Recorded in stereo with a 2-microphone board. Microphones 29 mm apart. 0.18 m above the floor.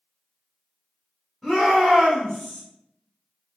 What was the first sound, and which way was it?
A shout, centre (ahead or behind).